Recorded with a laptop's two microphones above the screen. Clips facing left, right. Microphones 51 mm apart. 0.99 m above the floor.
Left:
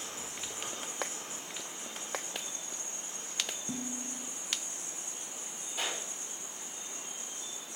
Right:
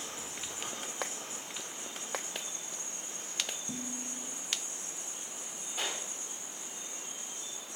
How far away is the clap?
About 3.5 m.